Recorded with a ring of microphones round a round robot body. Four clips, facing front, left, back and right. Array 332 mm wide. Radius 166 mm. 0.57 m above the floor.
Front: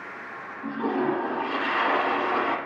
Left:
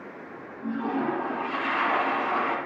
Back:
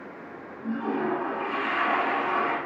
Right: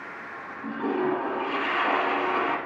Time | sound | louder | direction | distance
0.6 | a toilet flushing | right 1 dB, front 2 dB | 40° right | 2.5 m